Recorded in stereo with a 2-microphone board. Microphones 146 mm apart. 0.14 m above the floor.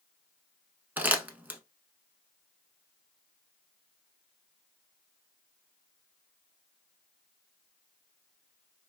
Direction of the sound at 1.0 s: 15° right (ahead or behind).